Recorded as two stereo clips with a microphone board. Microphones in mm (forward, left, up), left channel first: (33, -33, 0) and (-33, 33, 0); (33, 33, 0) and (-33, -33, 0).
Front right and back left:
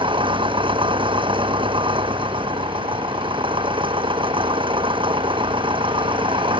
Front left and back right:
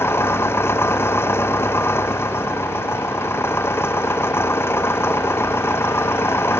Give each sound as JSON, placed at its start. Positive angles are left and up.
{"t": 0.0, "sound": "an engine running", "azimuth_deg": 110}